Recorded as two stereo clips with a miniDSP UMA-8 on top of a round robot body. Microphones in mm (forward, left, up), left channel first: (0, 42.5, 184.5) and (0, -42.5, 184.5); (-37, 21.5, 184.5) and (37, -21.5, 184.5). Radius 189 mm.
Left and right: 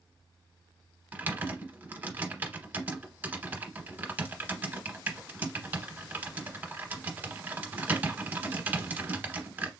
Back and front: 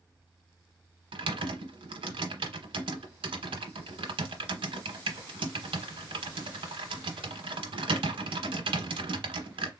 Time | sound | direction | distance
1.1 | typing on a keyboard | 20° right | 0.8 m